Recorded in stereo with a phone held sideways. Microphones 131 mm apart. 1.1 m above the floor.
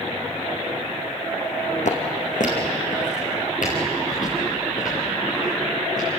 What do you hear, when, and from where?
1.9 s footsteps: 70° left (ahead or behind), 3.5 m; by 6.1 s 85° left, 10 m